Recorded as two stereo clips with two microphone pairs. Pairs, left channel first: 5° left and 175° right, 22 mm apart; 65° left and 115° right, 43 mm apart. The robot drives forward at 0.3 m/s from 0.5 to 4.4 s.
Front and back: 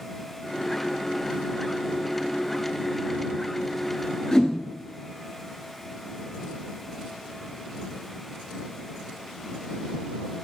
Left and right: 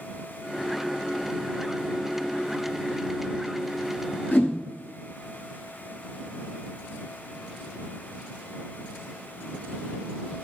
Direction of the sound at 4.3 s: 70° left.